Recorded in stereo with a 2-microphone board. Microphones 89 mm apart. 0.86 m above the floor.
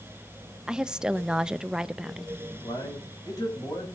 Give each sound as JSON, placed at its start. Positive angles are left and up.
{"t": 0.7, "sound": "a woman speaking", "side_deg": -10, "distance_m": 0.5}
{"t": 2.6, "sound": "a man speaking", "side_deg": 45, "distance_m": 6.5}